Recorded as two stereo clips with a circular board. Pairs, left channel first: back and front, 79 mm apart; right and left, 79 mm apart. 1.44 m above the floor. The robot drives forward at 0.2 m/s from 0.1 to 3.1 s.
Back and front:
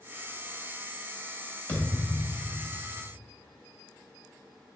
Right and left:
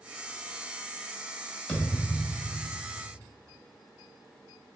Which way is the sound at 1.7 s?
150° right.